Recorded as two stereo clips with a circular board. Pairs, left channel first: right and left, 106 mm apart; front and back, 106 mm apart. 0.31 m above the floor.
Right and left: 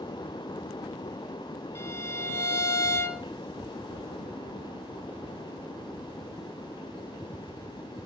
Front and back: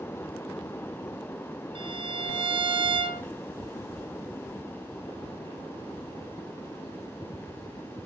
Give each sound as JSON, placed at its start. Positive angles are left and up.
{"t": 1.8, "sound": "a violin", "azimuth_deg": -150, "distance_m": 1.7}